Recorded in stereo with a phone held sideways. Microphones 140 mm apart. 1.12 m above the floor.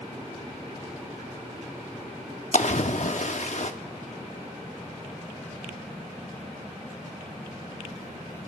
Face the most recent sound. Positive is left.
turn(degrees=55)  # may be behind; listen again after turning